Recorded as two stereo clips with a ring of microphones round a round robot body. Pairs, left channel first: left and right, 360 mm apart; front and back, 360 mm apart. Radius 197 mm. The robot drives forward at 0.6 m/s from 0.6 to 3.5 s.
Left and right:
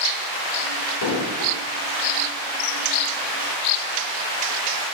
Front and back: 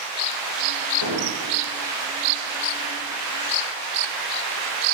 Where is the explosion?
45° left, 1.8 m; by 1.6 s 55° left, 1.5 m.